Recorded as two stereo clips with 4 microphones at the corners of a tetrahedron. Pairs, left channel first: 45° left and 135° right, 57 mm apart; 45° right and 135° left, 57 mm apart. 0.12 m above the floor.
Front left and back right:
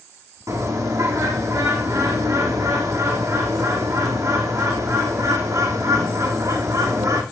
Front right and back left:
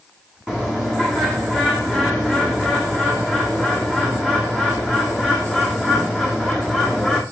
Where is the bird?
150° right, 4 m.